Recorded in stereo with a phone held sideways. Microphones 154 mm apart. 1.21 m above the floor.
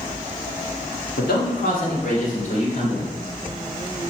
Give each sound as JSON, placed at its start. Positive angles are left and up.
{"t": 1.2, "sound": "a man speaking", "side_deg": 80, "distance_m": 2.0}